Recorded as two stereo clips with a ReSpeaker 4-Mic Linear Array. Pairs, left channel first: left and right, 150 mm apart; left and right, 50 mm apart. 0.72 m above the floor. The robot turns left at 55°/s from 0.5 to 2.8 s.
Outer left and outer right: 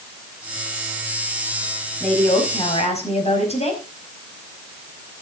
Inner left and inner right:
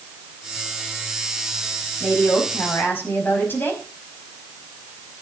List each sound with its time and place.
2.0 s a woman speaking: straight behind, 5 m; by 3.8 s 135° left, 5 m